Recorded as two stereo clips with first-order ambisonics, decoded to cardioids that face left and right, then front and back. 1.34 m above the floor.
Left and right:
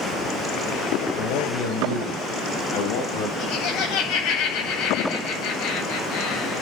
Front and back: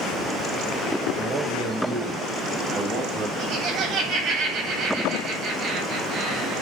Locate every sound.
1.1 s a man speaking: 115° left, 6.5 m; by 3.3 s 110° left, 8 m
3.4 s laughter: 130° left, 8.5 m